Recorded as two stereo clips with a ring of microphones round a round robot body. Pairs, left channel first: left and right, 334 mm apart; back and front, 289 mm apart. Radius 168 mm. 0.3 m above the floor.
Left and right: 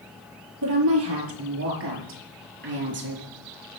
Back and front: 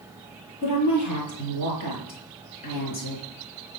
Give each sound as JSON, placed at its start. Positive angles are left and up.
{"t": 0.6, "sound": "a woman speaking", "azimuth_deg": -140, "distance_m": 6.5}